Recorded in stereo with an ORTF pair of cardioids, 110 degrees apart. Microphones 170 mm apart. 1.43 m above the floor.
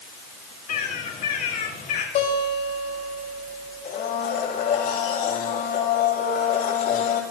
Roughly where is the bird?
Ahead left.